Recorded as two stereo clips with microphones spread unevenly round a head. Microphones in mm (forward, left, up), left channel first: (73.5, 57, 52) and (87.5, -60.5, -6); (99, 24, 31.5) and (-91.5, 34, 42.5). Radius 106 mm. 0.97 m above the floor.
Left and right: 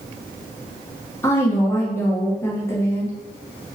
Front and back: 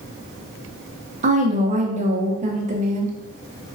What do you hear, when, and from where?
1.2 s a woman speaking: 165° right, 0.7 m